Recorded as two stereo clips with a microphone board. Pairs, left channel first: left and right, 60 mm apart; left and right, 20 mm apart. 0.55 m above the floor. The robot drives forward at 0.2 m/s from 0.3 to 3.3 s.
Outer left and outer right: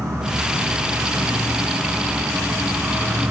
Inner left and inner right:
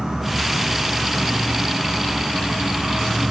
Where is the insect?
80° right, 1.0 m; by 3.3 s 60° right (ahead or behind), 1.1 m.